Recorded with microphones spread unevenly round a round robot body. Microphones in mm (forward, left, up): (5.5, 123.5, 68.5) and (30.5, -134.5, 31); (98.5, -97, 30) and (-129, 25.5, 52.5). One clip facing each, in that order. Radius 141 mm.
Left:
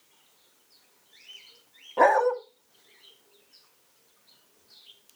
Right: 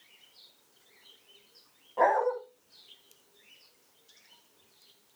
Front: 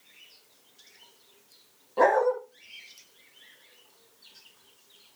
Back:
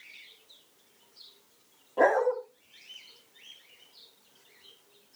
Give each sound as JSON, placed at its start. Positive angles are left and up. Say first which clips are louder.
{"t": 2.0, "sound": "a dog barking", "louder": "left 5 dB, front 2 dB", "azimuth_deg": 55, "distance_m": 1.3}